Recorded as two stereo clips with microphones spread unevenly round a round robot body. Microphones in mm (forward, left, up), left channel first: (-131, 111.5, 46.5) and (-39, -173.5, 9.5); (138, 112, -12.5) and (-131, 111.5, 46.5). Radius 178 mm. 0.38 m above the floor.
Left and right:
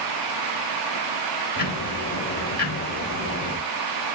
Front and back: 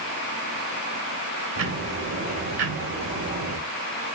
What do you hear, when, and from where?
1.6 s ticking: 165° left, 2.5 m